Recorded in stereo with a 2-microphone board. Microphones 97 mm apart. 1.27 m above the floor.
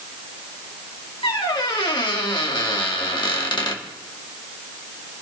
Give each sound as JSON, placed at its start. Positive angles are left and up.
{"t": 1.2, "sound": "a squeak", "side_deg": 55, "distance_m": 2.0}